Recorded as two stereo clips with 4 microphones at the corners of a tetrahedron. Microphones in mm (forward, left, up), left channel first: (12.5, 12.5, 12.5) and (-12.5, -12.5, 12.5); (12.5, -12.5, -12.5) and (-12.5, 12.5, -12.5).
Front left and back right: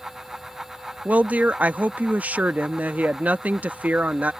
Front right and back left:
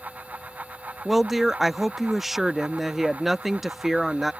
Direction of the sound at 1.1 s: 145° right.